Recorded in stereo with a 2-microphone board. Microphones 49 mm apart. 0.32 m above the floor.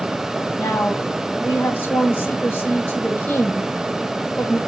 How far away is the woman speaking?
About 1.6 m.